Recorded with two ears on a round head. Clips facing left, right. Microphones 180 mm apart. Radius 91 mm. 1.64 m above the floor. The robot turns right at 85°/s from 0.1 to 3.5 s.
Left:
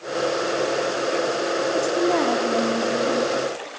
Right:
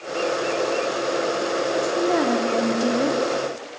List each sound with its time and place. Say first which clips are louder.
1.7 s a woman speaking: left 1 dB; 150° left, 3.5 m; by 3.2 s 85° right, 3.5 m